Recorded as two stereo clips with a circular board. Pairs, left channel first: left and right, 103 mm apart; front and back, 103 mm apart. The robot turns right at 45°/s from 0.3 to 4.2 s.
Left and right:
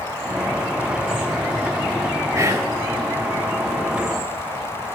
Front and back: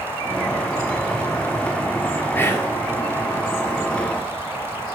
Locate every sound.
2.4 s whispering: 55° right, 1.5 m; by 2.7 s 40° right, 1.5 m